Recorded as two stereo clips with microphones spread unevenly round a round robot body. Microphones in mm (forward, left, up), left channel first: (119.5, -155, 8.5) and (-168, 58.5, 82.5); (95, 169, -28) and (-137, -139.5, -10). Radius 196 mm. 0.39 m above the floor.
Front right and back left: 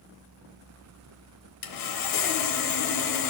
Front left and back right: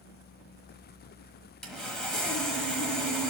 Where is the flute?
I don't hear a flute.